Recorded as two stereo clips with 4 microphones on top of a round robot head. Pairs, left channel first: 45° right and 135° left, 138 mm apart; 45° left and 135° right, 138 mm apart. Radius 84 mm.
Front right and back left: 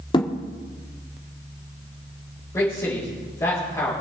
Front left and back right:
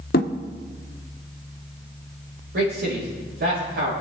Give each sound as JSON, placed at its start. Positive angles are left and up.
{"t": 0.1, "sound": "a thud", "azimuth_deg": 20, "distance_m": 1.0}
{"t": 2.5, "sound": "a man speaking", "azimuth_deg": -115, "distance_m": 5.0}